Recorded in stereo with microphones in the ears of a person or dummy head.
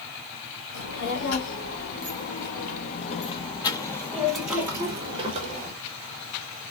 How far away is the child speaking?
About 2.5 m.